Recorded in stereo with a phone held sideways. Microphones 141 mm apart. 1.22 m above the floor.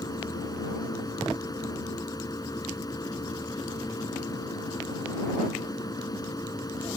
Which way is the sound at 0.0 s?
25° left (ahead or behind).